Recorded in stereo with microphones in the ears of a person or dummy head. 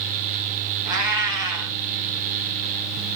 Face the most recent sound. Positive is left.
turn(degrees=-20)  # may be behind; listen again after turning